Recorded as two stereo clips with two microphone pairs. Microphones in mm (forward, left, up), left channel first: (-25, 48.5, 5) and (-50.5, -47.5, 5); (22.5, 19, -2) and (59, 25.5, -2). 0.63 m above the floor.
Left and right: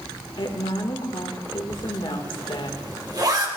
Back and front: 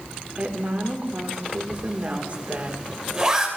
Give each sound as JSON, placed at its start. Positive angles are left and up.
{"t": 0.4, "sound": "a woman speaking", "azimuth_deg": 55, "distance_m": 1.8}
{"t": 1.7, "sound": "a zipper", "azimuth_deg": -60, "distance_m": 2.0}